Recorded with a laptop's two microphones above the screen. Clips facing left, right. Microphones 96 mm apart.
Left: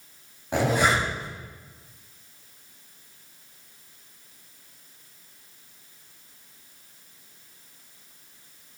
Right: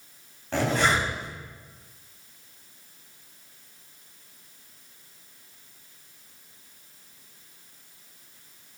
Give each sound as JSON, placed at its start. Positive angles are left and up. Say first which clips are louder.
{"t": 0.5, "sound": "a zipper", "louder": "left 2 dB", "side_deg": 15, "distance_m": 3.0}